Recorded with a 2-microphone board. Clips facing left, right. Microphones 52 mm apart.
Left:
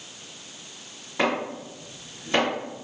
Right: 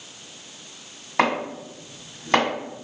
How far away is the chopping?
About 1.6 m.